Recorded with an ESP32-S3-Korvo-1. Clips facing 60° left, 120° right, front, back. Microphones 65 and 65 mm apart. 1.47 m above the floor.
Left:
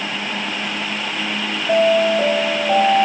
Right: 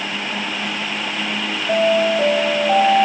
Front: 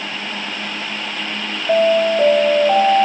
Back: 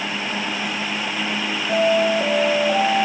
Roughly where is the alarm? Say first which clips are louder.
Left 2 dB, front 4 dB; ahead right.